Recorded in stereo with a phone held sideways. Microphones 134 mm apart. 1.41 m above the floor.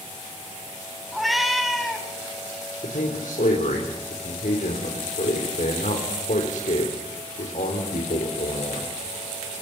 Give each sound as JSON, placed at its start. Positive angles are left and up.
{"t": 1.1, "sound": "a cat meowing", "side_deg": 0, "distance_m": 3.5}
{"t": 2.8, "sound": "a man speaking", "side_deg": 75, "distance_m": 4.0}